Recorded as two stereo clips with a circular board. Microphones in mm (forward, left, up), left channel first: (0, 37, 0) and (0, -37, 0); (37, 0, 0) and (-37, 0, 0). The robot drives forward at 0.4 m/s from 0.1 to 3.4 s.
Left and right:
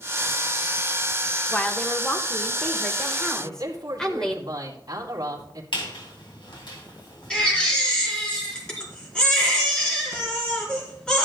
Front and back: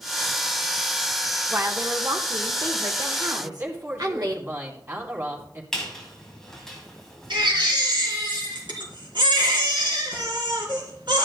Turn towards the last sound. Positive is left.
turn(degrees=170)